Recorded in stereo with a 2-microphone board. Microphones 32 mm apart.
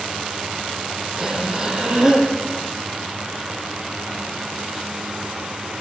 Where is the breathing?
20° right (ahead or behind), 4.5 m.